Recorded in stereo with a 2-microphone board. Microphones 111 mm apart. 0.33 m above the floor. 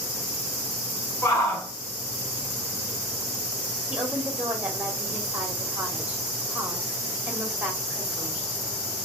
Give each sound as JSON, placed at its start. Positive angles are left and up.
{"t": 1.2, "sound": "a shout", "side_deg": 30, "distance_m": 1.6}
{"t": 3.9, "sound": "a woman speaking", "side_deg": -10, "distance_m": 1.3}